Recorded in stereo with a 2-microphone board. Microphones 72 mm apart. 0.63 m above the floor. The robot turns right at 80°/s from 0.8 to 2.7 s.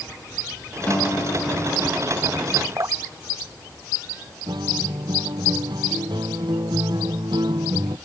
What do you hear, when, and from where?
0.9 s a guitar: 15° left; by 2.2 s 120° left
2.8 s dripping: 45° right (ahead or behind)
4.5 s a guitar: 85° right